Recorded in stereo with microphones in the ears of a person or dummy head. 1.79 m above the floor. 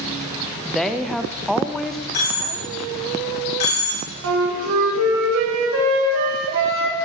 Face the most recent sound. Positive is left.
turn(degrees=-75)  # may be behind; listen again after turning